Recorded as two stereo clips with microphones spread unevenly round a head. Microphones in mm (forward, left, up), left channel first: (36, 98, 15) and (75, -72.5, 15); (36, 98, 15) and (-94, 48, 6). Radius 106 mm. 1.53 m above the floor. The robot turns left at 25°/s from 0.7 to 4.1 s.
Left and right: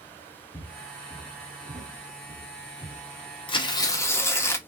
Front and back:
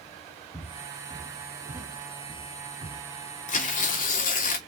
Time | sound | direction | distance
0.5 | footsteps | 100° left | 1.6 m
3.5 | tearing paper | 45° left | 0.9 m